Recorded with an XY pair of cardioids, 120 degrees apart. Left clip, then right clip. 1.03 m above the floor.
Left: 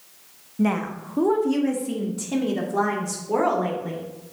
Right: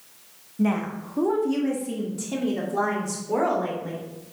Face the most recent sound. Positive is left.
turn(degrees=10)